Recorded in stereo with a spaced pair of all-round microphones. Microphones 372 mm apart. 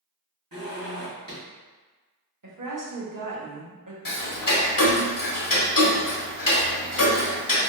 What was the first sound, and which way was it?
A zipper, 65° right (ahead or behind).